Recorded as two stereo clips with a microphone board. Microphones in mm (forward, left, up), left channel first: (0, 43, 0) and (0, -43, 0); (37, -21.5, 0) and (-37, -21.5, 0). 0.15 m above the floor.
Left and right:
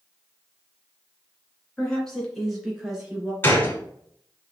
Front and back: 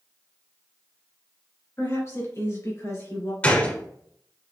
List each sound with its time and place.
1.8 s a woman speaking: 15° left, 2 m; by 3.3 s 15° right, 2.5 m
3.4 s a gunshot: 50° left, 1.0 m